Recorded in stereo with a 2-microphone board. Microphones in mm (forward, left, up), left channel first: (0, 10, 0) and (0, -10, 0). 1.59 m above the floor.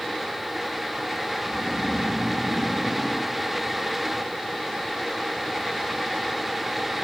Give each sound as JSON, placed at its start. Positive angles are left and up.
{"t": 1.5, "sound": "snoring", "side_deg": -50, "distance_m": 1.7}